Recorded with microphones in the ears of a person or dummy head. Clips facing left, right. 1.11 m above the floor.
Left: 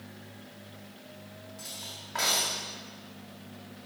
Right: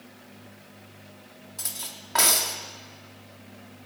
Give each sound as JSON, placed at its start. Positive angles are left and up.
{"t": 1.6, "sound": "cutlery clinking", "side_deg": -65, "distance_m": 1.3}